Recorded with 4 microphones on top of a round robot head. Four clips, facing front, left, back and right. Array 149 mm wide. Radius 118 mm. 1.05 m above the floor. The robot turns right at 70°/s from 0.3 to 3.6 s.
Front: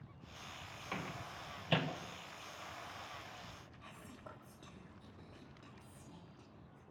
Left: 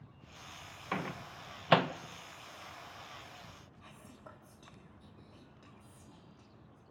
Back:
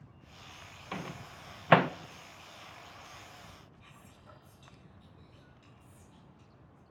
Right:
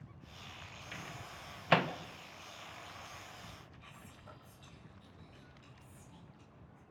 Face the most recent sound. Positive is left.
turn(degrees=40)